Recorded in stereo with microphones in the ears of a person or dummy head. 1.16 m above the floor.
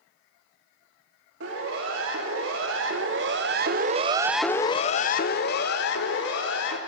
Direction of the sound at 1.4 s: 70° right (ahead or behind).